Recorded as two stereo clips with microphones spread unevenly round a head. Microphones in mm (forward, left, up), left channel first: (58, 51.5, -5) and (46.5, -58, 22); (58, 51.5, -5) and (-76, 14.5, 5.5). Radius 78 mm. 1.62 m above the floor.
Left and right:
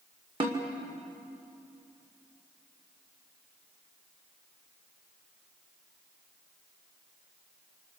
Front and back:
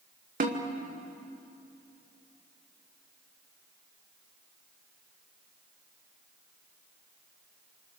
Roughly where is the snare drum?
Behind right.